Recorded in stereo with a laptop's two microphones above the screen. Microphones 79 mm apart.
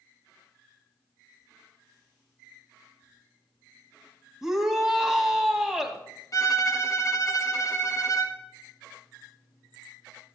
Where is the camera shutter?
No camera shutter in this recording.